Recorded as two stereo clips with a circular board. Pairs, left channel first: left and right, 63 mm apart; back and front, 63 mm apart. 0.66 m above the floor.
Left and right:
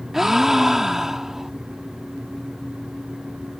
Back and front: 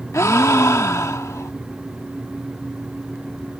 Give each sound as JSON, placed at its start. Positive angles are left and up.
{"t": 0.1, "sound": "a gasp", "azimuth_deg": -170}